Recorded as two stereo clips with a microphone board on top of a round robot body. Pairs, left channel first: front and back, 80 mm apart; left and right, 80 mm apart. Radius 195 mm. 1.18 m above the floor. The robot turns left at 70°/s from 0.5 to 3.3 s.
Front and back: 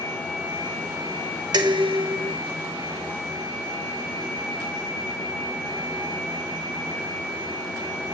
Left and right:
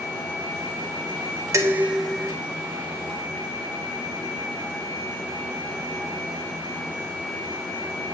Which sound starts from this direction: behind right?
Dishes clattering, at 1.5 s.